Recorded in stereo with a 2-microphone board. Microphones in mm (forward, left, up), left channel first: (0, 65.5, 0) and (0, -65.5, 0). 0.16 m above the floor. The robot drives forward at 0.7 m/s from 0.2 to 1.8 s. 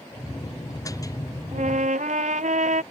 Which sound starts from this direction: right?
A trumpet, at 1.5 s.